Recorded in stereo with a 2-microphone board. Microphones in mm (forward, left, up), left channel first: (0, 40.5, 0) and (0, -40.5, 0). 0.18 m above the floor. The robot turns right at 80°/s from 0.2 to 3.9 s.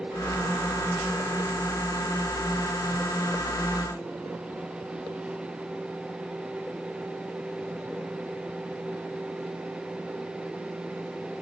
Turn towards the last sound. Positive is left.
No sound to turn to.